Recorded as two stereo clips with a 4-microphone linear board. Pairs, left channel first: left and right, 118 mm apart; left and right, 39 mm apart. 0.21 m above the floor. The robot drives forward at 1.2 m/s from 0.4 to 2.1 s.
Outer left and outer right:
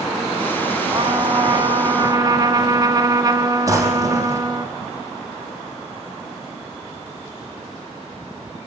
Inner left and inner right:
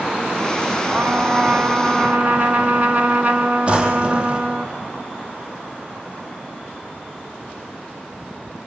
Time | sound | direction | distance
0.9 | a trumpet | 45° right (ahead or behind) | 1.5 m
3.7 | a drawer | 25° right (ahead or behind) | 4 m